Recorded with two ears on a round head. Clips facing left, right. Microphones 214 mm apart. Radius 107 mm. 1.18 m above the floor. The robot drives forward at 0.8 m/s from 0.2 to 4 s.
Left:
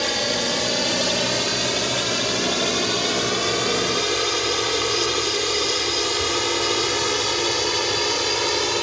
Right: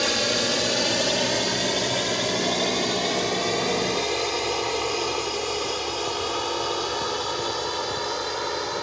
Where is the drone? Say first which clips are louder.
Even; 10° right (ahead or behind); by 8.8 s 45° left (ahead or behind).